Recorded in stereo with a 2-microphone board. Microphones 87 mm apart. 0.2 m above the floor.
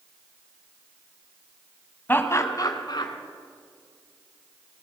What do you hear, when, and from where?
2.1 s laughter: 20° left (ahead or behind), 1.1 m; by 3.1 s 55° left (ahead or behind), 1.8 m